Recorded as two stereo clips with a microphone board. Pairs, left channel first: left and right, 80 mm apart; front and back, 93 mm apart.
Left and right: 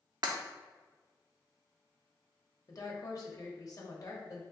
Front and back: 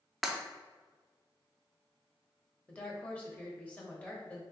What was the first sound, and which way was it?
Breaking glass, 90° right.